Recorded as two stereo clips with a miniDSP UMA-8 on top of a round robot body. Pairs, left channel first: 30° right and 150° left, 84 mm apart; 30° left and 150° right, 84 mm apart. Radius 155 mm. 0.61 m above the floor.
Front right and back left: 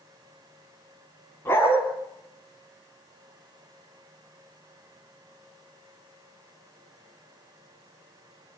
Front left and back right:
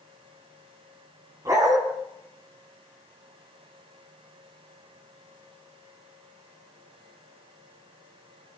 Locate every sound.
1.4 s a dog barking: 95° right, 3.5 m